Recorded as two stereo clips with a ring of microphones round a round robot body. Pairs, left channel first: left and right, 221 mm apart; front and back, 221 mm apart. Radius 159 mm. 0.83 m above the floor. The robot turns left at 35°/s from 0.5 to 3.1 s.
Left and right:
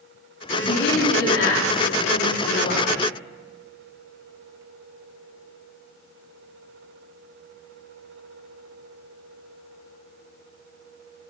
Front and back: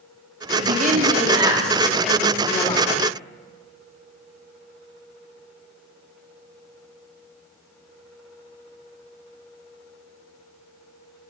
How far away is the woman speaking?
About 2.5 m.